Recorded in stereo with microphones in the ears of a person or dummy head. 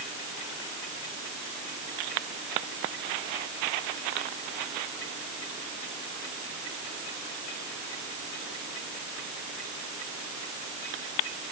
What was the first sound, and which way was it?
Only background noise.